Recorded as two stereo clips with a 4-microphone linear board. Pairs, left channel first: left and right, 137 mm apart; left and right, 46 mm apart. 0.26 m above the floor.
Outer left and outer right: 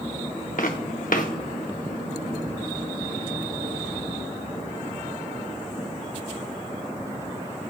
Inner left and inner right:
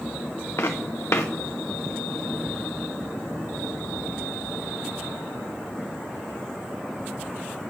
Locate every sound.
0.6 s footsteps: 75° left (ahead or behind), 1.6 m